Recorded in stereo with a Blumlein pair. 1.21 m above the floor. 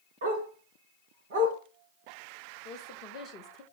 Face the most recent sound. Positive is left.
turn(degrees=35)